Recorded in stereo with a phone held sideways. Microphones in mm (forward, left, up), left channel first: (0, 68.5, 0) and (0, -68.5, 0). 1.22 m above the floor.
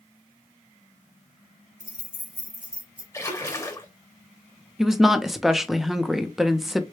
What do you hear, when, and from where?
1.8 s keys jangling: 75° right (ahead or behind), 1.9 m; by 3.0 s 55° right (ahead or behind), 2.0 m
3.1 s a splash: 20° left (ahead or behind), 0.9 m
4.8 s a woman speaking: centre (ahead or behind), 0.6 m